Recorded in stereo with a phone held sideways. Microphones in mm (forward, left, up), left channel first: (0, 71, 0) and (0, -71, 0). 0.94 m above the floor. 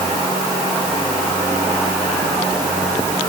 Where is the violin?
No violin in this recording.